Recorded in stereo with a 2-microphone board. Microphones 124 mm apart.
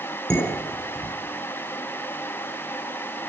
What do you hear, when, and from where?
0.3 s dishes clattering: 10° left (ahead or behind), 5 m